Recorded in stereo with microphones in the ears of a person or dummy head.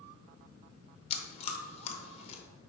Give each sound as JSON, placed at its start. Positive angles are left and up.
{"t": 1.1, "sound": "chewing", "side_deg": 35, "distance_m": 0.9}